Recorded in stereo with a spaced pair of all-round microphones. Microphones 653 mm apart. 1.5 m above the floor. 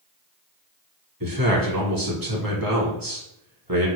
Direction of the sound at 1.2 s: 30° right (ahead or behind).